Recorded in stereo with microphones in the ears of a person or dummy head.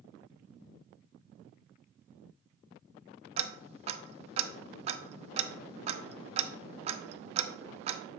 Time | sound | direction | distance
3.4 | ticking | 35° right (ahead or behind) | 0.6 m